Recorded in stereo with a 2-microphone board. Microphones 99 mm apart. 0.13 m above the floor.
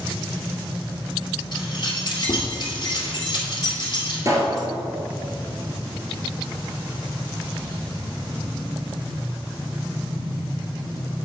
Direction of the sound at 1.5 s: 50° left (ahead or behind).